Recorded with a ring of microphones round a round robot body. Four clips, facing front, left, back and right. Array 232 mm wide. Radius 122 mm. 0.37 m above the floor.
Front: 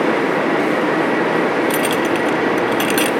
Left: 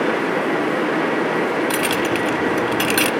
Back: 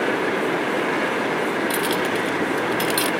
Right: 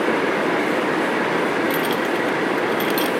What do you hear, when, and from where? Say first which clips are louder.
1.7 s keys jangling: left 1 dB, front 5 dB; 75° left, 1.6 m